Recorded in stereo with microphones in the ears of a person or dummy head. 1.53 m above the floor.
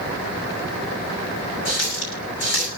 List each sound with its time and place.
1.6 s a running tap: 65° left (ahead or behind), 6.5 m